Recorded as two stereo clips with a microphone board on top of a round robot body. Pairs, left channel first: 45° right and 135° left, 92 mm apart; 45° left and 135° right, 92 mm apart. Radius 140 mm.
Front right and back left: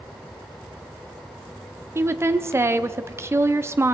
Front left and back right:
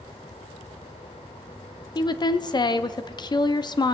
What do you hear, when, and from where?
1.9 s a woman speaking: 75° left, 1.1 m